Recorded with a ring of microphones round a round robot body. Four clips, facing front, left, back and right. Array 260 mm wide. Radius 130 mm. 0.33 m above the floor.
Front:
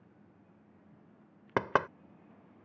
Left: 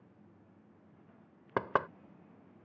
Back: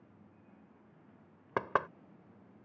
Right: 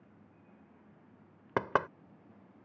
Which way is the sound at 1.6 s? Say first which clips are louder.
Right 1 dB, front 3 dB; 20° right.